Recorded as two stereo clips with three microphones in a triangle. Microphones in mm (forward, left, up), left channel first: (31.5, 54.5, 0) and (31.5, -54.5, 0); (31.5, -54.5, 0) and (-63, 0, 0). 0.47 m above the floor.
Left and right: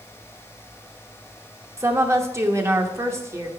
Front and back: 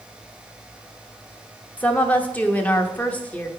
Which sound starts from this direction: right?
A woman speaking, at 1.8 s.